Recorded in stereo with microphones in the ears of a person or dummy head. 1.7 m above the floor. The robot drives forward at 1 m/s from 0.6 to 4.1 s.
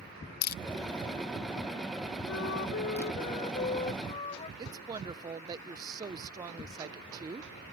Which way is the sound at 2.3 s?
80° left.